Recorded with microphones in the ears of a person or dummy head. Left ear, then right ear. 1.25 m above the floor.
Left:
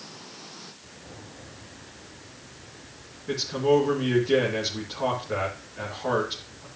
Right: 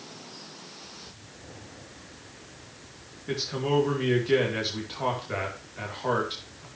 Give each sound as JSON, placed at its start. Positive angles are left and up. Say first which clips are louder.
{"t": 3.3, "sound": "a man speaking", "louder": "left 5 dB", "side_deg": -15, "distance_m": 2.5}